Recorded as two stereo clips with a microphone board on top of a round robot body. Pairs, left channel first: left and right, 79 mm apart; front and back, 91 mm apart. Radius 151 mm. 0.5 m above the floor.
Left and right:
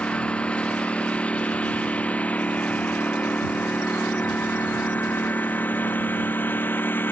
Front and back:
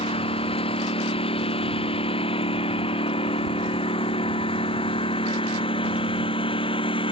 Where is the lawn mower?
15° left; by 7.1 s 25° left.